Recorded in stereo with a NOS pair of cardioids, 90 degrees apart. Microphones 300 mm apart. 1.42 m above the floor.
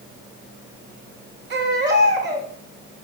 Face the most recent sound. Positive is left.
turn(degrees=-40)